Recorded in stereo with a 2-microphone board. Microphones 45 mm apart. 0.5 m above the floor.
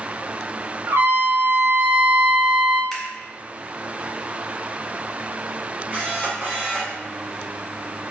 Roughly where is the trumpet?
Right.